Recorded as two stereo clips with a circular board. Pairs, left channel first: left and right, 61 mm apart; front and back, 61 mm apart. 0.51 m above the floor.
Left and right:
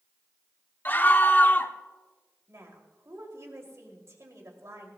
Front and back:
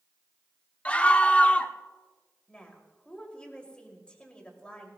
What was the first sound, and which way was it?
A scream, 55° left.